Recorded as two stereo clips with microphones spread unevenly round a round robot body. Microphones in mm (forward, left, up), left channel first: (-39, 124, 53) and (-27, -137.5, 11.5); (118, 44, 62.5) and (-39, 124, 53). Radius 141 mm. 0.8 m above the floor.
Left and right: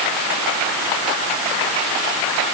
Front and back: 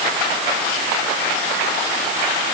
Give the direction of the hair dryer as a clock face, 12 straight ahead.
No hair dryer in this recording.